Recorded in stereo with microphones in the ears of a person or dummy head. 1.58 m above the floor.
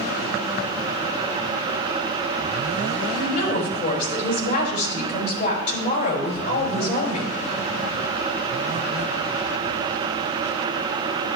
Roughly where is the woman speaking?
Left.